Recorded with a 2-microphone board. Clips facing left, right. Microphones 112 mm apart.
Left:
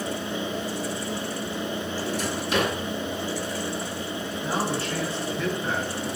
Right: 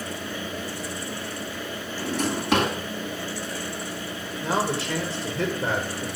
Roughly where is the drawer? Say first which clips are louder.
Right 6 dB; right.